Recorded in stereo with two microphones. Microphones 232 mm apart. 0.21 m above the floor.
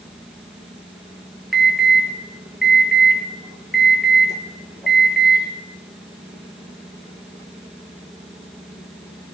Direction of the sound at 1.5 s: Centre (ahead or behind).